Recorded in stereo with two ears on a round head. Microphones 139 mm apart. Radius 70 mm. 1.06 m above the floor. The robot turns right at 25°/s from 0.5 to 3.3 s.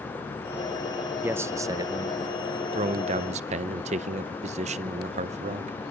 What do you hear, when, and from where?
1.2 s a man speaking: 160° right, 0.5 m; by 5.8 s 110° right, 0.5 m